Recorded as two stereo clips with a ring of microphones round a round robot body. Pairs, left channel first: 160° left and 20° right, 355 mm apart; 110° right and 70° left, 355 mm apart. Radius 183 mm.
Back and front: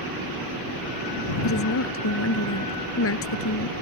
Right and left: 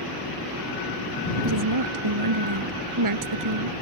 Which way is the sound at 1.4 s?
105° left.